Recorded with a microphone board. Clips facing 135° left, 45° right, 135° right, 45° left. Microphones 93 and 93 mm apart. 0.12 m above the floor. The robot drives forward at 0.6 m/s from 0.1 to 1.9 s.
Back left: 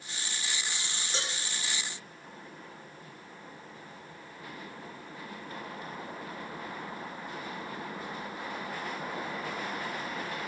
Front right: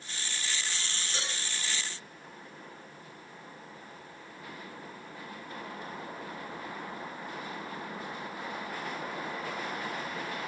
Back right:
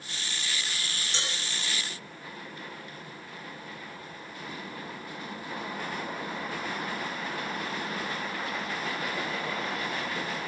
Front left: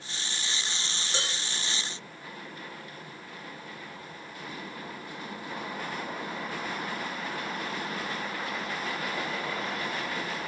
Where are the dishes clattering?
80° left, 4 m.